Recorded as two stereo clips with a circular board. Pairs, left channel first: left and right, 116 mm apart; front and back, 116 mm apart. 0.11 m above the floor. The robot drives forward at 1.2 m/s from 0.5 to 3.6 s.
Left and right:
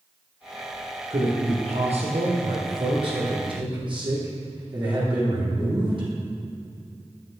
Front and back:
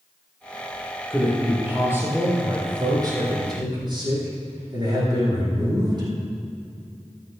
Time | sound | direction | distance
1.1 | a man speaking | 95° right | 4 m